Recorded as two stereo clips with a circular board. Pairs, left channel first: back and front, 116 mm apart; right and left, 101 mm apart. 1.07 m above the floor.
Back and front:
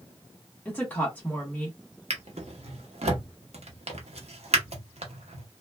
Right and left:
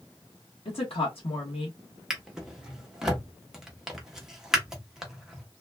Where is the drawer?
5° left, 0.8 m.